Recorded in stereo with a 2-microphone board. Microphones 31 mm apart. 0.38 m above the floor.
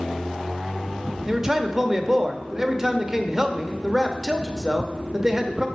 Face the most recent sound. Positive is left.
turn(degrees=-15)  # may be behind; listen again after turning